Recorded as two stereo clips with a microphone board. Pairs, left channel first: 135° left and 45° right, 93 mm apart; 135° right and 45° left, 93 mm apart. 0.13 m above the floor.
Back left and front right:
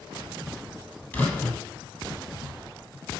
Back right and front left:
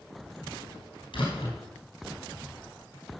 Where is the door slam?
150° right, 3 m.